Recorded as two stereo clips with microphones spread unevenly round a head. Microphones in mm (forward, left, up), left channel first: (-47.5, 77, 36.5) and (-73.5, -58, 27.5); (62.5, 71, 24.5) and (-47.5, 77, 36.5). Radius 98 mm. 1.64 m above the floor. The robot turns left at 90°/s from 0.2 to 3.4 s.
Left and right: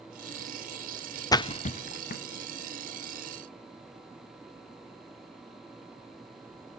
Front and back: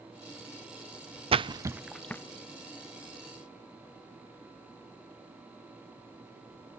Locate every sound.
1.3 s a splash: 145° left, 0.8 m; by 2.2 s 60° left, 0.8 m